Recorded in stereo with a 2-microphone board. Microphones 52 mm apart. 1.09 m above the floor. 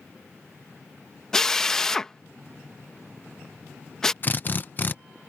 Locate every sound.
1.3 s a drill: 10° left (ahead or behind)
4.2 s a drill: 40° left (ahead or behind)